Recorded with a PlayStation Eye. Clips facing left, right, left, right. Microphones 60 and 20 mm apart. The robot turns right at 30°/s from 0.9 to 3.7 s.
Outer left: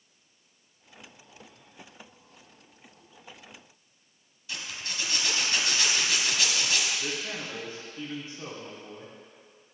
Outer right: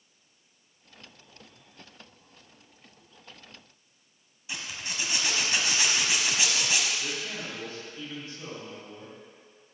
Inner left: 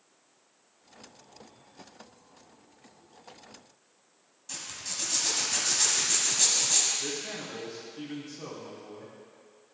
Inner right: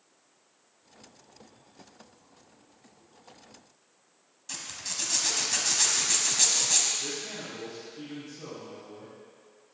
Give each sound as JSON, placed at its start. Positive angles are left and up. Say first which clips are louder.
{"t": 4.5, "sound": "a zipper", "louder": "outer right 1 dB, inner right 1 dB", "side_deg": -20, "distance_m": 1.5}
{"t": 7.0, "sound": "a man speaking", "louder": "outer left 1 dB, even", "side_deg": 25, "distance_m": 3.0}